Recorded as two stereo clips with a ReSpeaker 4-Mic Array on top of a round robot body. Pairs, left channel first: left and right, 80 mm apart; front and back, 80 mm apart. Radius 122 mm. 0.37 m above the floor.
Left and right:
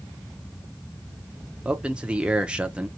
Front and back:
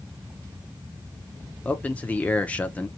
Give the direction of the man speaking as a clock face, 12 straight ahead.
1 o'clock.